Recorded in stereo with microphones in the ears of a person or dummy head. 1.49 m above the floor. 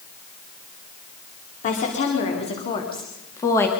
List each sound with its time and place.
1.6 s a woman speaking: 45° left (ahead or behind), 4 m; by 3.7 s 15° left (ahead or behind), 3 m